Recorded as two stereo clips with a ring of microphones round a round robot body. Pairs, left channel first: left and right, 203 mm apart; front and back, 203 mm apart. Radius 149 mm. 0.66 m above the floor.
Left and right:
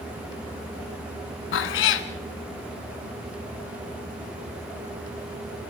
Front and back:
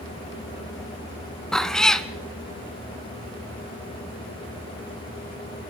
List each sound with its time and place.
1.5 s a cat meowing: 85° left, 1.0 m